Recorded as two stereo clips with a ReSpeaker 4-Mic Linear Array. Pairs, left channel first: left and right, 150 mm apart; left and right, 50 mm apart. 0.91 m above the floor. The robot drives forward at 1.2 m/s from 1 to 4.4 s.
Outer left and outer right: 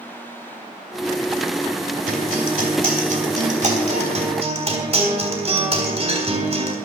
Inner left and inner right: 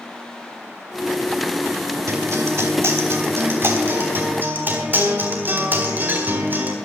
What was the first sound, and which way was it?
A guitar, 75° right (ahead or behind).